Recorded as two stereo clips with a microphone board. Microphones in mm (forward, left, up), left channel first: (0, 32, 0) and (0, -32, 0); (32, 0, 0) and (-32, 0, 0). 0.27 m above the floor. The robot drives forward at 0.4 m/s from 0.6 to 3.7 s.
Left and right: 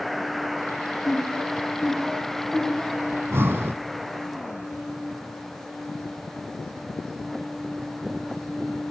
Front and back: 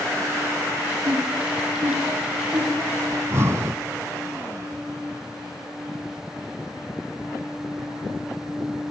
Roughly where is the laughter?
Behind.